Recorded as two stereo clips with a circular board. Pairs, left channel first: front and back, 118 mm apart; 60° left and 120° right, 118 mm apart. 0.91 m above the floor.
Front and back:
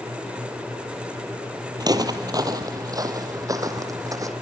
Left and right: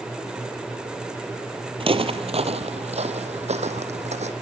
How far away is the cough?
No cough in this recording.